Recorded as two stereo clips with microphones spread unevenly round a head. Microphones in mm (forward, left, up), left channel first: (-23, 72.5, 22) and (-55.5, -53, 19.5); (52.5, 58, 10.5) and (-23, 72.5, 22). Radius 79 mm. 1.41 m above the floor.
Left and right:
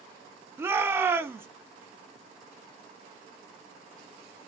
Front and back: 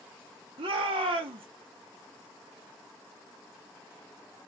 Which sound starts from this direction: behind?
A shout, at 0.6 s.